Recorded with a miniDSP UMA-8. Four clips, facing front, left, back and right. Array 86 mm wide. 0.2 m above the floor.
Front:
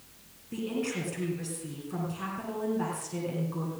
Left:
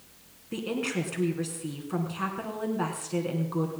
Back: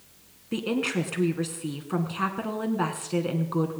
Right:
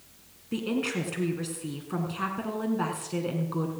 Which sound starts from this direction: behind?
A woman speaking, at 0.5 s.